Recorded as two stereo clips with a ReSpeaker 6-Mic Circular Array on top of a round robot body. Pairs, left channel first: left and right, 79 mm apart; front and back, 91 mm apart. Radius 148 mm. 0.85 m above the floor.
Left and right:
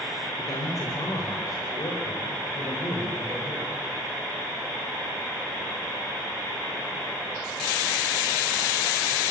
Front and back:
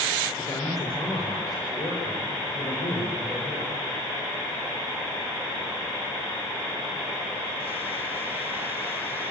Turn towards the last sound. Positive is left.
turn(degrees=40)